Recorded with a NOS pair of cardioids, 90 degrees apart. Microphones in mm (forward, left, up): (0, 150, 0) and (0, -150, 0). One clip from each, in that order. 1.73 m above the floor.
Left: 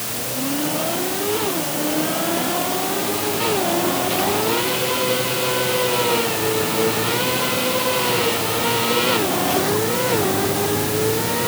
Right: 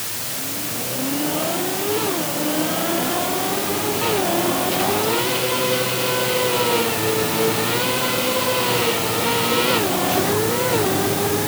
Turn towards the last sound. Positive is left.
No sound to turn to.